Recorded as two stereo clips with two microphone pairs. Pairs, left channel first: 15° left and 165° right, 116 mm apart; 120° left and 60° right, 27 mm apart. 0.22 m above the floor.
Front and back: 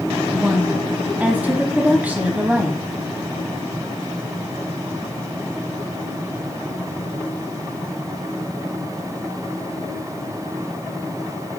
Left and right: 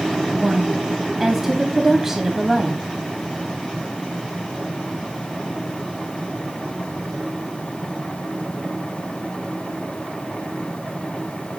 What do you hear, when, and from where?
0.3 s a woman speaking: 115° right, 1.0 m